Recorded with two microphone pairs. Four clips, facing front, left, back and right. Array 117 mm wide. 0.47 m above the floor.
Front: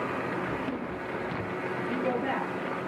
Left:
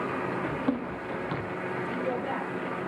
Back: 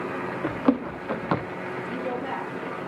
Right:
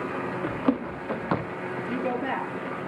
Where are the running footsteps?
160° right, 3.5 m; by 1.5 s 135° right, 2.5 m.